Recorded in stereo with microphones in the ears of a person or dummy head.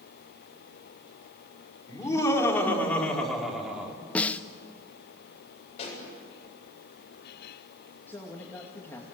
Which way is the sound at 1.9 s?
20° left (ahead or behind).